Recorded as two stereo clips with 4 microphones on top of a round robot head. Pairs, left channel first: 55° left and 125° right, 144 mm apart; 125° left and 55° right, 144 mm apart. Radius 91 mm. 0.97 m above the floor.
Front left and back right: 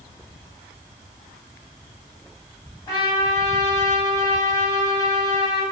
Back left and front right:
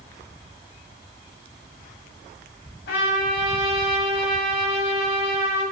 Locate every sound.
2.9 s a trumpet: 125° left, 0.8 m